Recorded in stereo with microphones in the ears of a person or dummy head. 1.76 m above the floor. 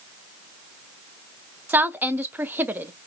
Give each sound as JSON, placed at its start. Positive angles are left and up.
{"t": 1.7, "sound": "a woman speaking", "side_deg": -5, "distance_m": 0.5}